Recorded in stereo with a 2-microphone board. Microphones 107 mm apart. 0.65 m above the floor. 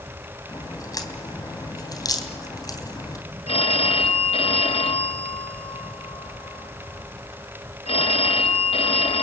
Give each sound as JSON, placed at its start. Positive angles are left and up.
{"t": 0.5, "sound": "a crack", "side_deg": 35, "distance_m": 3.0}
{"t": 3.5, "sound": "a phone ringing", "side_deg": 65, "distance_m": 2.0}